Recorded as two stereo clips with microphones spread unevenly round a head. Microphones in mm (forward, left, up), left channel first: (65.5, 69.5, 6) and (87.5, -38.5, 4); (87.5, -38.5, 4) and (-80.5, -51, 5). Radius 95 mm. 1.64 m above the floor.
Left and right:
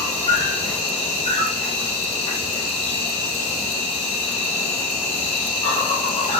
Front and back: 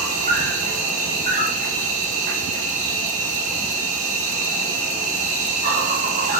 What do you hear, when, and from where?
0.0 s an insect: 140° left, 0.9 m